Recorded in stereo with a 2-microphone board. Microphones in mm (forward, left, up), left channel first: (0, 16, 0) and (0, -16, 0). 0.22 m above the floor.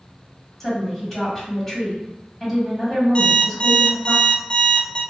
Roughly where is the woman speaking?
Centre.